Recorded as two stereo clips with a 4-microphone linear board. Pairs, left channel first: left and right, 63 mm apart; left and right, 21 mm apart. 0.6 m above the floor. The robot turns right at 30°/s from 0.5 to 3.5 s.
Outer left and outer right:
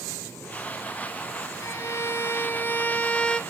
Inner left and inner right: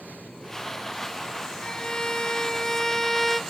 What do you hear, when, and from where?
1.6 s a violin: 115° left, 0.7 m; by 3.4 s 165° left, 0.7 m